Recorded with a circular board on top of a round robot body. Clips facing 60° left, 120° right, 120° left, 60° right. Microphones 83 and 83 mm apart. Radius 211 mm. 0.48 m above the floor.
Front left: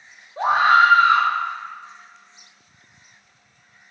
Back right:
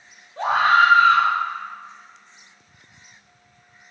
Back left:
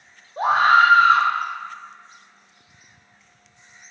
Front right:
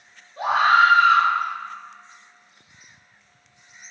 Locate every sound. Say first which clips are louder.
0.4 s a scream: front left 1 dB, back left 2 dB; 120° left, 0.9 m